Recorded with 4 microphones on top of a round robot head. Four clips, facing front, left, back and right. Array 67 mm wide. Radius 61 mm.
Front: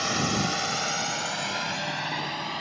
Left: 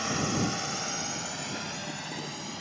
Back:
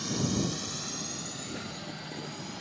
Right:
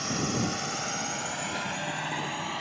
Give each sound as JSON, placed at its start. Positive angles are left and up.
{"t": 0.0, "sound": "a drone", "azimuth_deg": 10}